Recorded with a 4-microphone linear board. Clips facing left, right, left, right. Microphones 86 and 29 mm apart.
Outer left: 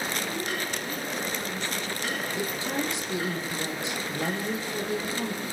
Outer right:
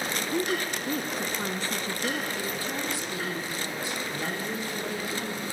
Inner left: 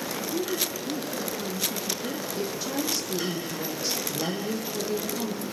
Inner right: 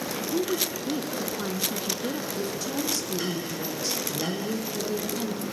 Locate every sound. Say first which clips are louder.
0.3 s a woman speaking: outer right 3 dB, inner right 3 dB; 40° right (ahead or behind), 2 m
2.4 s a woman speaking: outer left 2 dB, even; 20° left (ahead or behind), 5.5 m